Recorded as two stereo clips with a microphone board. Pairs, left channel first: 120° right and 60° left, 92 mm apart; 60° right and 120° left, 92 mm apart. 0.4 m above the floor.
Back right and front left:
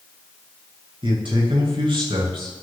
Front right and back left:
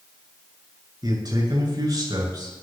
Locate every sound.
1.0 s a man speaking: 80° left, 7.5 m